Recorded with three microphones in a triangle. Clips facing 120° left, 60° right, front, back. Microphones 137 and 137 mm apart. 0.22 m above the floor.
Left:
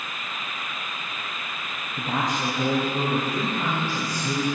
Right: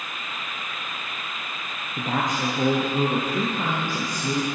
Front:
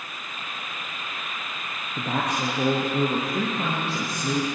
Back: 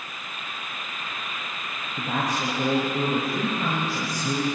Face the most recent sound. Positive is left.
turn(degrees=-20)